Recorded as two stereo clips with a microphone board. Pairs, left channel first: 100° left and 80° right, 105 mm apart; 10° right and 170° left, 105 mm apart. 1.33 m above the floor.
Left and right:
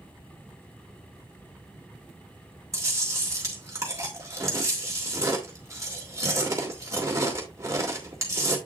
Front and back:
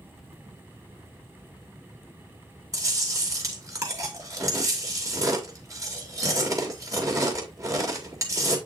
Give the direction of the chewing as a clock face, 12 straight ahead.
5 o'clock.